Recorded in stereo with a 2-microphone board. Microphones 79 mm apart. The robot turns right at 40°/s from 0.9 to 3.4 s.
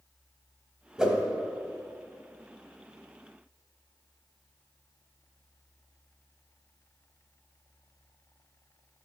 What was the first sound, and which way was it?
A whoosh, 10° right (ahead or behind).